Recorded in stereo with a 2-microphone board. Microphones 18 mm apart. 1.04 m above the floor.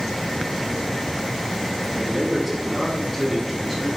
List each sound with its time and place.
1.9 s a man speaking: 25° right (ahead or behind), 1.8 m; by 3.9 s 5° left (ahead or behind), 3.5 m